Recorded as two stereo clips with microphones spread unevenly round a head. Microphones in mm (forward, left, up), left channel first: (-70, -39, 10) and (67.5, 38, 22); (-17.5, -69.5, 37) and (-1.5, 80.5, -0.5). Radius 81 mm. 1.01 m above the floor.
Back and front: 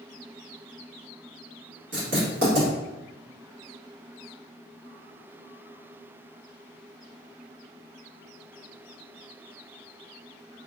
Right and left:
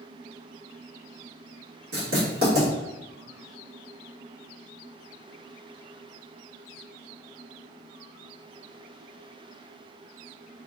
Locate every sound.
1.9 s writing: 60° left, 1.7 m